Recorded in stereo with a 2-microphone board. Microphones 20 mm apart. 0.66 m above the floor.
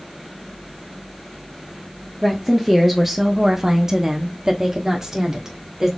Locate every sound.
2.2 s a woman speaking: 5° left (ahead or behind), 1.0 m; by 5.9 s 25° right (ahead or behind), 1.7 m